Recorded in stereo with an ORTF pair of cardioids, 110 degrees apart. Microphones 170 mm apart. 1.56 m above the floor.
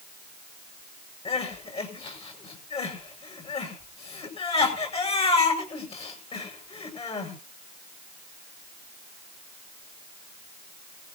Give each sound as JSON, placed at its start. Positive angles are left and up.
{"t": 1.2, "sound": "crying", "azimuth_deg": 35, "distance_m": 8.5}